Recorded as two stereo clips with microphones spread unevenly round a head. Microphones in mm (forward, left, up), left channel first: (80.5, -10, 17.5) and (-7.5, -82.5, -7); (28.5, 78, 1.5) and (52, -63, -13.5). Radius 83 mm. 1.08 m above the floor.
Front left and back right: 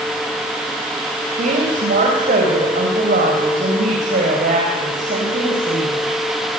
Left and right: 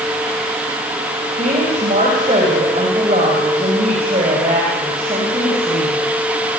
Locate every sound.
1.4 s a woman speaking: 140° right, 5.5 m